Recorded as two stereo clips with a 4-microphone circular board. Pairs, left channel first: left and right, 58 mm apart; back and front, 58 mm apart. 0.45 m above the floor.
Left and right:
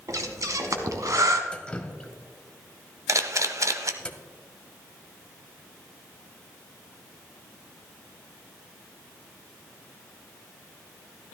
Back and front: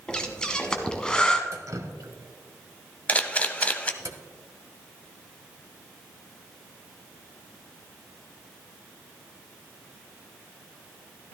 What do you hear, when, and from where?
0.1 s breathing: 105° right, 1.0 m
1.5 s dripping: 15° left, 0.8 m
3.1 s a camera shutter: 115° right, 0.7 m